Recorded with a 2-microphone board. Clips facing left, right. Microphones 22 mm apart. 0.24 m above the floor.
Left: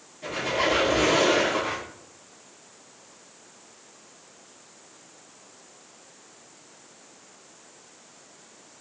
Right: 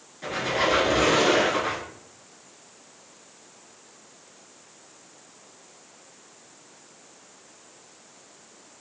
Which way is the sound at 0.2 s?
40° right (ahead or behind).